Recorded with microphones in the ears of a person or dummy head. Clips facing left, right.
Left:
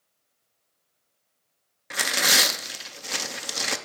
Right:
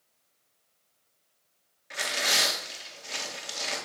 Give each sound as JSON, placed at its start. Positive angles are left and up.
{"t": 1.9, "sound": "tearing paper", "side_deg": 65, "distance_m": 0.6}